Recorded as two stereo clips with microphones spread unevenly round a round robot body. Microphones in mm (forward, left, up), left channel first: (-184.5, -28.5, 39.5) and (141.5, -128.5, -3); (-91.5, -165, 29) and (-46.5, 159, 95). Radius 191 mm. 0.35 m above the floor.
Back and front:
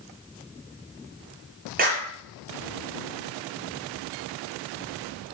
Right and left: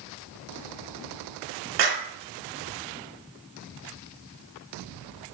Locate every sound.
1.8 s a clap: 50° left, 4 m